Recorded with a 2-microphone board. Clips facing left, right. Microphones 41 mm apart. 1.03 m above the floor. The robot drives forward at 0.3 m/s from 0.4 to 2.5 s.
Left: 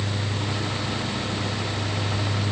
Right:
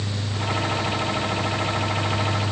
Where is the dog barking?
I don't hear a dog barking.